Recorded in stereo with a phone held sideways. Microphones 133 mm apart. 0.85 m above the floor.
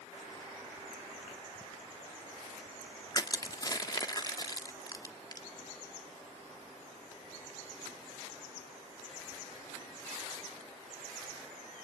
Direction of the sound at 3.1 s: 30° left (ahead or behind).